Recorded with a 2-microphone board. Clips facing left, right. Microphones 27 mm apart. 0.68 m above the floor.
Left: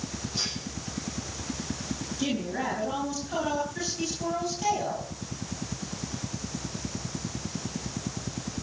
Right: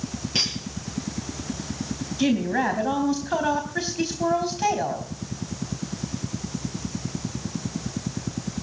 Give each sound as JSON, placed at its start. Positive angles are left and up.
{"t": 0.3, "sound": "cutlery clinking", "side_deg": -80, "distance_m": 8.0}
{"t": 2.2, "sound": "a woman speaking", "side_deg": -45, "distance_m": 3.5}